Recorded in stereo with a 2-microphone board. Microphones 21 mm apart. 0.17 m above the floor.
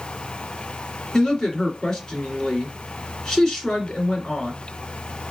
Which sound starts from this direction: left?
A woman speaking, at 1.1 s.